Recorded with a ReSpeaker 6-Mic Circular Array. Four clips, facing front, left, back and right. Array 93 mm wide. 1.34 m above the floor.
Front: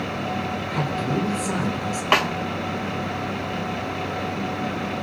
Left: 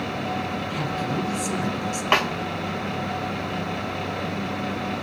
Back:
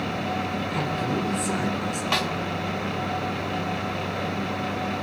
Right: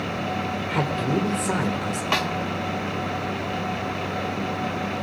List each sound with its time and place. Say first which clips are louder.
0.7 s a man speaking: right 3 dB, front 3 dB; 85° right, 3.5 m
2.1 s a snare drum: left 4 dB, front 8 dB; 35° left, 0.9 m